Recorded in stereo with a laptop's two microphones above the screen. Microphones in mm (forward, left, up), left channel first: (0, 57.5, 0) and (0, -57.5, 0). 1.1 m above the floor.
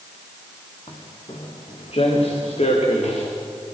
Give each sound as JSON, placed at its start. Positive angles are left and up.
{"t": 0.9, "sound": "footsteps", "side_deg": 50, "distance_m": 4.0}